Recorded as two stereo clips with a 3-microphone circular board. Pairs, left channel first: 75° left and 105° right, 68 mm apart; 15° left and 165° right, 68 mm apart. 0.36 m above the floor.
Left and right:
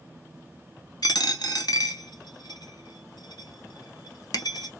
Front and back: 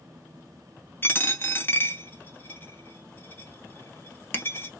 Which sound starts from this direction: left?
A dropped coin, at 1.0 s.